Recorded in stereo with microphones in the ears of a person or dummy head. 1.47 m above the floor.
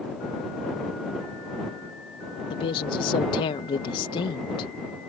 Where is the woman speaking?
30° left (ahead or behind).